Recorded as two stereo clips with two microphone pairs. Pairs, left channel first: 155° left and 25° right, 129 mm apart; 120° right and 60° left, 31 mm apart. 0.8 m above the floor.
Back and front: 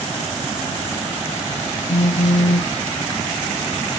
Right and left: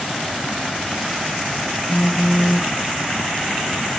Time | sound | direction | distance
1.9 | a phone buzzing | 170° left | ?